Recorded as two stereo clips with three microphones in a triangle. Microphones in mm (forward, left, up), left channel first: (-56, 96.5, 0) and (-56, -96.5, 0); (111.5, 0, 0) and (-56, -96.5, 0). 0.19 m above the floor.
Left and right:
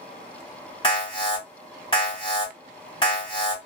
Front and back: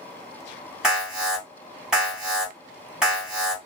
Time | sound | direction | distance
0.8 | an alarm | 125° left | 1.6 m